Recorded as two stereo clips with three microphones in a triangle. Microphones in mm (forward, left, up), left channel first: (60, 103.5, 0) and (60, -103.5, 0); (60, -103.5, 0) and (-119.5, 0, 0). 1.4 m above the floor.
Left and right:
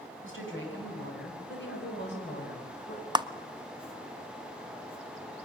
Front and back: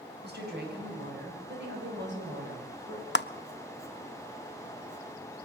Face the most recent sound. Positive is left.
turn(degrees=-20)